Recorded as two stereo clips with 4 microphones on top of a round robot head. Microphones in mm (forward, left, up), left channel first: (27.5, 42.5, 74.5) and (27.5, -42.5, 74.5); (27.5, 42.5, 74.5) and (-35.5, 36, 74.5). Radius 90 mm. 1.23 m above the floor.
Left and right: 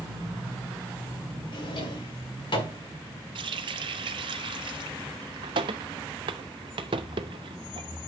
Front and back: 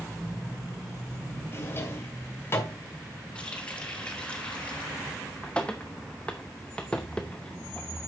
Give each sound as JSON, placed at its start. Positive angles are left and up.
{"t": 1.5, "sound": "a drawer", "azimuth_deg": 60, "distance_m": 2.5}
{"t": 3.4, "sound": "a running tap", "azimuth_deg": -75, "distance_m": 0.5}